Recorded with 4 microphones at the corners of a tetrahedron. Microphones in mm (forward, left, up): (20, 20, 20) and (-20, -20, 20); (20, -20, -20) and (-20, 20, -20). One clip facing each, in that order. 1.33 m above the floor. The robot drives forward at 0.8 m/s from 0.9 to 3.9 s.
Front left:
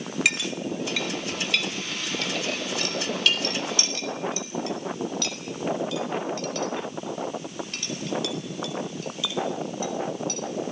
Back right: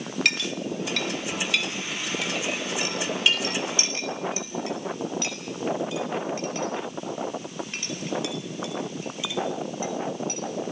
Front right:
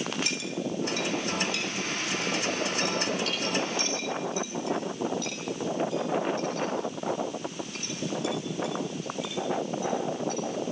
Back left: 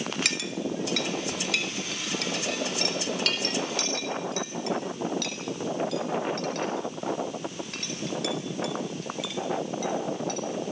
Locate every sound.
0.2 s a clink: 130° left, 1.9 m; by 10.7 s 155° left, 4 m